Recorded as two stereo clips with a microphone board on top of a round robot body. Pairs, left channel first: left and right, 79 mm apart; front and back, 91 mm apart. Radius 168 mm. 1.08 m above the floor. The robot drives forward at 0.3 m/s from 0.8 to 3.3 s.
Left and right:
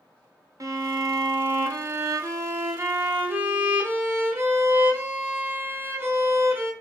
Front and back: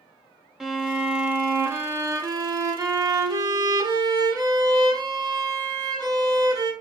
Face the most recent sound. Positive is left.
turn(degrees=-145)